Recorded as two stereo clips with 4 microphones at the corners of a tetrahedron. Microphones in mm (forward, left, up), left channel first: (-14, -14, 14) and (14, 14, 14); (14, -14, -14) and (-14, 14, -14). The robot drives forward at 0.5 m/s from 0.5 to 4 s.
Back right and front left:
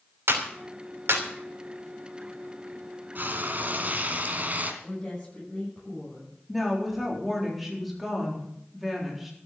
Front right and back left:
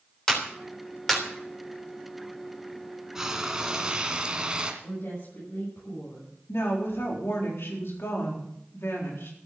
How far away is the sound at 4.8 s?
About 7.5 m.